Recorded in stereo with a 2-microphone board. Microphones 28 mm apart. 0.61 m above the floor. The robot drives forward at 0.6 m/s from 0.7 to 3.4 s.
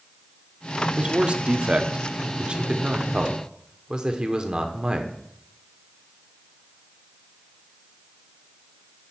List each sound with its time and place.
1.0 s a man speaking: 40° right (ahead or behind), 1.0 m; by 5.1 s 25° right (ahead or behind), 1.4 m